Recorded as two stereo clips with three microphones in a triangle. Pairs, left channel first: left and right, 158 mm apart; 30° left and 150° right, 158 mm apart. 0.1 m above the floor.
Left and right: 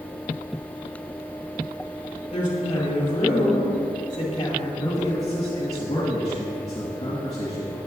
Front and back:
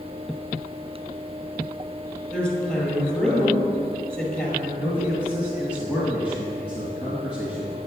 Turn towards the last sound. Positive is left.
turn(degrees=140)